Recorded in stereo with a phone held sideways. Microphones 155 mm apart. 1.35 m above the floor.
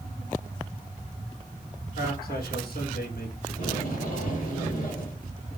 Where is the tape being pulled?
60° left (ahead or behind), 3 m.